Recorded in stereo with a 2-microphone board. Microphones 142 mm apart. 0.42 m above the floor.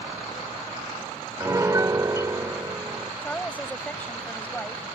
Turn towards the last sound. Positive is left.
turn(degrees=10)  # may be behind; listen again after turning